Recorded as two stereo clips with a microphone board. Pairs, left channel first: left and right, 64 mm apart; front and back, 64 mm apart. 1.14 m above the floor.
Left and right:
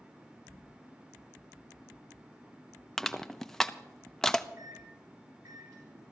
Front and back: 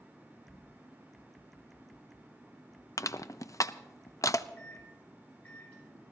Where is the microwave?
70° right, 7.5 m.